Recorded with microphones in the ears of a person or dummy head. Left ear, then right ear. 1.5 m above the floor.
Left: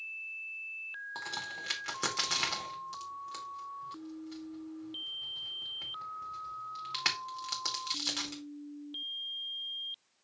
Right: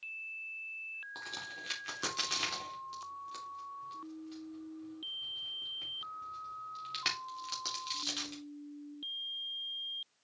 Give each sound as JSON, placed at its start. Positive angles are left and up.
{"t": 1.1, "sound": "a crack", "side_deg": 15, "distance_m": 2.5}